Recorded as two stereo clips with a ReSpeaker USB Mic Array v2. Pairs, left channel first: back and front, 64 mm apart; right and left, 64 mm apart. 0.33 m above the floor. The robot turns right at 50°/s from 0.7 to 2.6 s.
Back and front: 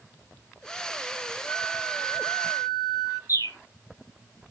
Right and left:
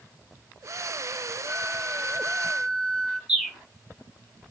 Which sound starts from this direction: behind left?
A flute, at 1.4 s.